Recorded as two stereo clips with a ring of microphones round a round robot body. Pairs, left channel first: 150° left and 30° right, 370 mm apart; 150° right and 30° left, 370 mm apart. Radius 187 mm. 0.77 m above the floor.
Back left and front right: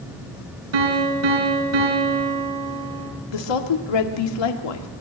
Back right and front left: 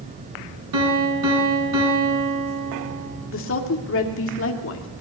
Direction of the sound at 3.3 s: 155° left.